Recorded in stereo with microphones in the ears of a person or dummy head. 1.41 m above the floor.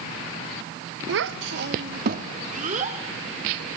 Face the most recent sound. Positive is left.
turn(degrees=-35)  # may be behind; listen again after turning